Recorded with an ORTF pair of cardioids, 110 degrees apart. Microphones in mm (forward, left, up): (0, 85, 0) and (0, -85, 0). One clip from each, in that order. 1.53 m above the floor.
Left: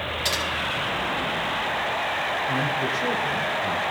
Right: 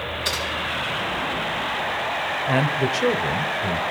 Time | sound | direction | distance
0.2 | typing on a keyboard | 70° left | 6.5 m
2.5 | a man speaking | 40° right | 0.8 m